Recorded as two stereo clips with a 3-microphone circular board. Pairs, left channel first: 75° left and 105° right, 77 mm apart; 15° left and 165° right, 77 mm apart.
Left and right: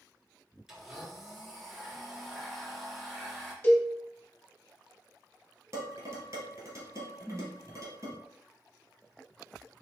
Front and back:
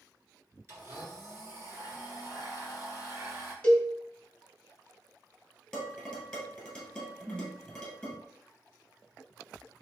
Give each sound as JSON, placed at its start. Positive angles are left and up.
{"t": 0.7, "sound": "a blender", "azimuth_deg": 175, "distance_m": 1.8}
{"t": 3.6, "sound": "a cowbell", "azimuth_deg": 70, "distance_m": 1.6}
{"t": 5.7, "sound": "dishes clattering", "azimuth_deg": -65, "distance_m": 1.7}
{"t": 7.2, "sound": "a whoosh", "azimuth_deg": -165, "distance_m": 0.8}